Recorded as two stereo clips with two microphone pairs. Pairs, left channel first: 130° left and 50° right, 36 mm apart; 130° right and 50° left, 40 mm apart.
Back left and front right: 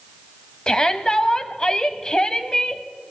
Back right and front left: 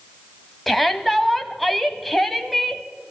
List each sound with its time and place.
0.7 s a shout: 145° left, 1.2 m